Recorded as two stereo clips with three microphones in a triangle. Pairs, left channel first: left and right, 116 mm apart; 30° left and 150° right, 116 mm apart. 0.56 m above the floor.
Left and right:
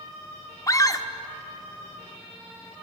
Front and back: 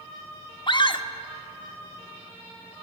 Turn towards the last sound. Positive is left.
turn(degrees=40)